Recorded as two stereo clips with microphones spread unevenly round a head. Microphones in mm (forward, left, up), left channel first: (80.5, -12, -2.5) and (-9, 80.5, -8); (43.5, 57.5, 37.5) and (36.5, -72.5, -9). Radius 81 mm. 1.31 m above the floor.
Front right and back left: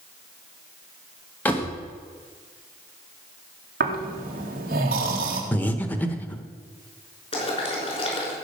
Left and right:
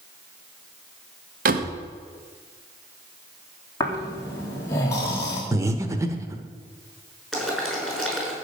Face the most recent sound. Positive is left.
turn(degrees=-5)